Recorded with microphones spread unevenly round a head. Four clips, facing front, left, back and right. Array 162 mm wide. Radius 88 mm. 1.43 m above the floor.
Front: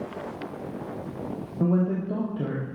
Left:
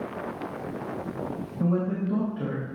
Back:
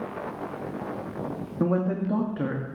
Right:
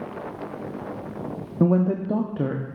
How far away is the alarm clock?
I don't hear an alarm clock.